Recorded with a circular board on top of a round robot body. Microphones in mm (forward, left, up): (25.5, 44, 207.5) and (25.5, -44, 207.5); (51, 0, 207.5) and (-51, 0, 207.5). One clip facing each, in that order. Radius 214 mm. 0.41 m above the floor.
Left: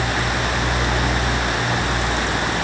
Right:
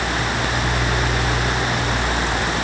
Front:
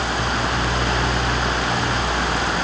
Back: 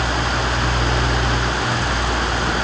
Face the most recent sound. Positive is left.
No sound to turn to.